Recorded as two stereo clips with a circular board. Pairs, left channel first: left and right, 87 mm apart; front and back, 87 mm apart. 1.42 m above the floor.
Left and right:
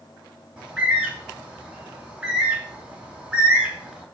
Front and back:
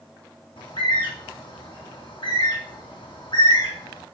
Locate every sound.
0.6 s a bird: 10° right, 3.5 m